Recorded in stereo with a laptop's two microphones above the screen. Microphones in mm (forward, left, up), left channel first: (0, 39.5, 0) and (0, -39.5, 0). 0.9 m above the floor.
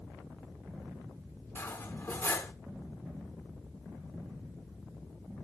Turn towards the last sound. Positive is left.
turn(degrees=30)  # may be behind; listen again after turning